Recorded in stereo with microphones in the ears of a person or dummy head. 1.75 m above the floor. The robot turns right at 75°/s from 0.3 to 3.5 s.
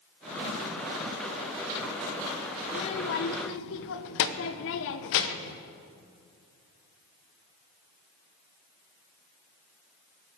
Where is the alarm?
No alarm in this recording.